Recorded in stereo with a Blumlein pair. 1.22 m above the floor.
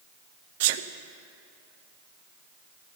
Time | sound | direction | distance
0.6 | a sneeze | 50° right | 0.8 m